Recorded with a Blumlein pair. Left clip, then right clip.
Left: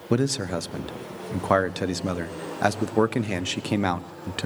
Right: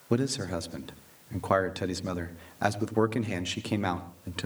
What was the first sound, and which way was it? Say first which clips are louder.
A man speaking: left 4 dB; 15° left.